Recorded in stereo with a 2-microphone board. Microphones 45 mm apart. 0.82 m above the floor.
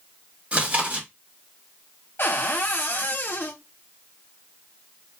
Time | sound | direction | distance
0.5 | chewing | 35° right (ahead or behind) | 1.7 m
2.2 | a cupboard door | 60° left (ahead or behind) | 1.1 m